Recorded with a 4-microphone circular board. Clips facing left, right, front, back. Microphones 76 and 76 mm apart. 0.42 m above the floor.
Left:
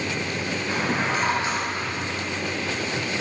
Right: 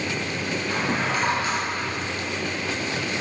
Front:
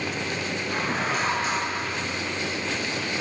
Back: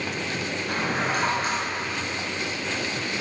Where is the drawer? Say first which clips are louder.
Left 1 dB, back 1 dB; 160° left, 4.5 m.